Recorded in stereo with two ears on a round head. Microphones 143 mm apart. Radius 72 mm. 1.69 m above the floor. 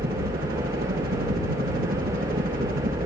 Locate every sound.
0.0 s a helicopter: 65° right (ahead or behind); by 3.1 s 60° right (ahead or behind)